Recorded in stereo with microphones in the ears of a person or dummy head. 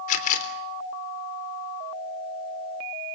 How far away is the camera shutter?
About 3.5 m.